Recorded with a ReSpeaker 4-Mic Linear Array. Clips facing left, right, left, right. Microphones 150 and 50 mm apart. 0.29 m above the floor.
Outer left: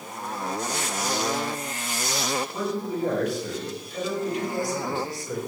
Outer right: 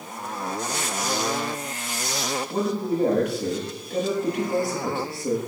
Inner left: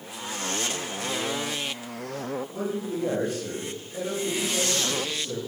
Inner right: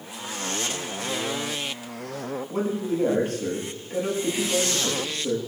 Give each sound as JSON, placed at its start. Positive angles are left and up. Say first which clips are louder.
{"t": 2.5, "sound": "a man speaking", "louder": "outer right 4 dB, inner right 4 dB", "side_deg": -70, "distance_m": 8.5}